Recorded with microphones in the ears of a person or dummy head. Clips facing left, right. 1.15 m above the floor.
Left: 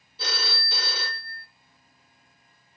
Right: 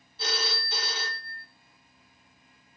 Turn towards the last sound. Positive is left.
turn(degrees=70)  # may be behind; listen again after turning